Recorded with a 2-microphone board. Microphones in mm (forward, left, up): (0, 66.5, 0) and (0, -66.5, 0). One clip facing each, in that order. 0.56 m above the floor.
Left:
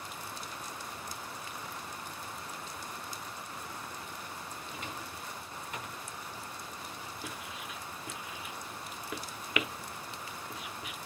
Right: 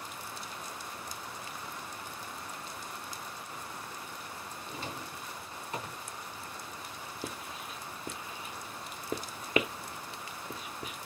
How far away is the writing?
About 0.8 m.